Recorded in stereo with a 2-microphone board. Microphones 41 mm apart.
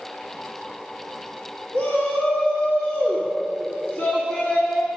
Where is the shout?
50° left (ahead or behind), 2.5 m.